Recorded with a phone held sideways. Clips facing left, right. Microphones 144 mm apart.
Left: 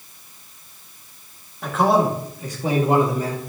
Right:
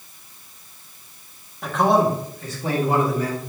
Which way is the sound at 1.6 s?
Centre (ahead or behind).